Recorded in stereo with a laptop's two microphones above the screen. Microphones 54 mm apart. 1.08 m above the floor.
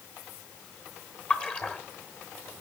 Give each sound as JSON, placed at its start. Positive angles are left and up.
{"t": 1.3, "sound": "a splash", "side_deg": 25, "distance_m": 1.0}